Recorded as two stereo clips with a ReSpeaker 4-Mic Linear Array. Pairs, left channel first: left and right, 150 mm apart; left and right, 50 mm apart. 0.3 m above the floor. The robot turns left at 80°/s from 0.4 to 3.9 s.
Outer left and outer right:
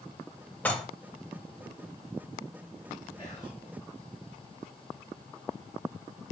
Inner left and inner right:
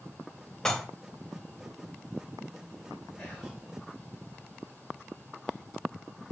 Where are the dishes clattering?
10° left (ahead or behind), 0.6 m; by 0.8 s 5° left (ahead or behind), 0.6 m.